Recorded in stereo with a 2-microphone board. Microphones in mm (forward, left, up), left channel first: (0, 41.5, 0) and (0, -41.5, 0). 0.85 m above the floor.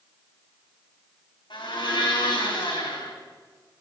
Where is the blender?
75° left (ahead or behind), 3 m.